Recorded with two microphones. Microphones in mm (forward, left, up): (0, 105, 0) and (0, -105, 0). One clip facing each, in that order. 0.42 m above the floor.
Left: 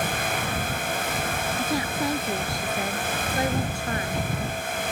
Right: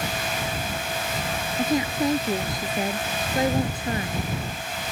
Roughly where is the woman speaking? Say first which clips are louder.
Right 6 dB; centre.